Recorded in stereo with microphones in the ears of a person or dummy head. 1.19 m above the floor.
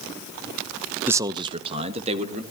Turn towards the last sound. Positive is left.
turn(degrees=-40)  # may be behind; listen again after turning